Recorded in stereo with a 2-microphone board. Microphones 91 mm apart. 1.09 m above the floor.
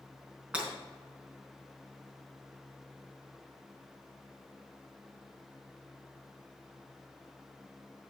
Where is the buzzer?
I don't hear a buzzer.